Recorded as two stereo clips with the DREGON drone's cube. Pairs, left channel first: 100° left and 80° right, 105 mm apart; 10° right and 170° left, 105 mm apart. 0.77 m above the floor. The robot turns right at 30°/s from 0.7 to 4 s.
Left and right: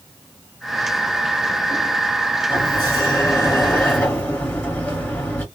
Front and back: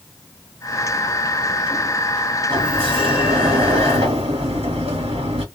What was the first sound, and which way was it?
A sliding door, 130° left.